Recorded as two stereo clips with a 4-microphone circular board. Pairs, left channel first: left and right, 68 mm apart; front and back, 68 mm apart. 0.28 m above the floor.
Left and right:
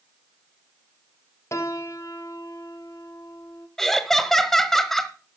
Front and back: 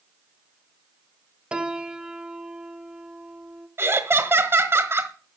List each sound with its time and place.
1.5 s a piano: 110° left, 0.9 m
3.8 s laughter: 170° left, 1.4 m